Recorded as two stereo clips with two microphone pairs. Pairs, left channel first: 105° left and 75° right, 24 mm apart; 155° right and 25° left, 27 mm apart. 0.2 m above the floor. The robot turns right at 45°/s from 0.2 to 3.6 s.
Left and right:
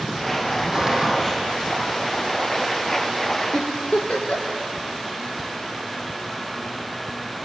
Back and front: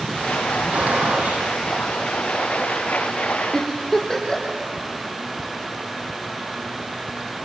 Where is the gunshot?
10° right, 8 m; by 1.5 s 25° left, 8 m.